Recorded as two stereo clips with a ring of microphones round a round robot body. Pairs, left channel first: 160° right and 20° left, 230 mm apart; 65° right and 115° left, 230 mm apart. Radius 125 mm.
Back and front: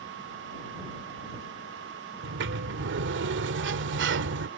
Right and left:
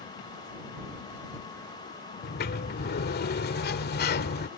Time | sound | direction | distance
2.2 | a sliding door | 20° right | ?